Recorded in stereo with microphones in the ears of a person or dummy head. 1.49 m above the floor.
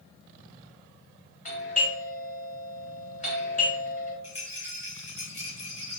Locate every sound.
1.4 s a doorbell: 40° left (ahead or behind), 1.6 m
4.2 s a rattle: 30° left (ahead or behind), 1.3 m